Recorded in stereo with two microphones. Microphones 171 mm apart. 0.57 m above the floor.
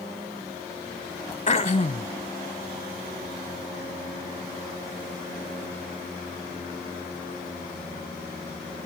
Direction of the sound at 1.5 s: 45° left (ahead or behind).